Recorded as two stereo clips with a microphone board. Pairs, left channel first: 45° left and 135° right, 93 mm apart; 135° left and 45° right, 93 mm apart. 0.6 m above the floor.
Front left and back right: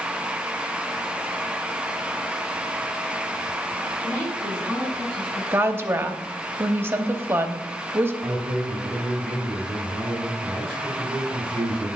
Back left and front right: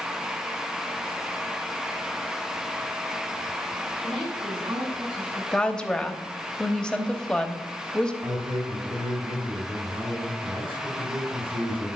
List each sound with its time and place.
4.0 s a woman speaking: 30° right, 3.5 m; by 5.4 s 40° right, 5 m
5.5 s a woman speaking: 160° right, 0.8 m
8.2 s a man speaking: 35° right, 5 m